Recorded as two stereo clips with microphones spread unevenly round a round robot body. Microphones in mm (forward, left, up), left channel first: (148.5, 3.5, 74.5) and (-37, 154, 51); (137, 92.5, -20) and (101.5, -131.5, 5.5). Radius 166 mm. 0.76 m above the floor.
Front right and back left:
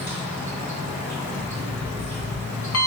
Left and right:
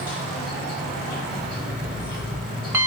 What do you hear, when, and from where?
0.0 s an insect: 45° left, 1.8 m
1.3 s an alarm clock: 20° right, 1.9 m